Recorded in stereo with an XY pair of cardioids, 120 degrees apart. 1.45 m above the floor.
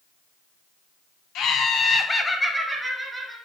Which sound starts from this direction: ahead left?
Laughter, at 1.4 s.